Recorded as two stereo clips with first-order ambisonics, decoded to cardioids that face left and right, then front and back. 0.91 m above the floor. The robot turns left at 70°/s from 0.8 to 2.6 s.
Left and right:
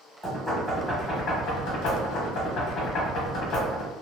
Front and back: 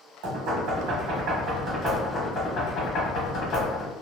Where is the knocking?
Straight behind, 1.1 m; by 3.9 s 50° left, 1.1 m.